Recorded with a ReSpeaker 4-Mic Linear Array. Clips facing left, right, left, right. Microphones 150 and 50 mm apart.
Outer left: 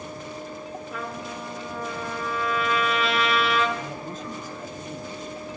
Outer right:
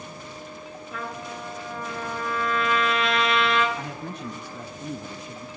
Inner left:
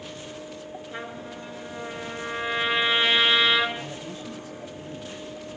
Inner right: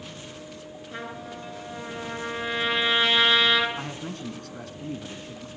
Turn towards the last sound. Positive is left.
turn(degrees=-75)  # may be behind; listen again after turning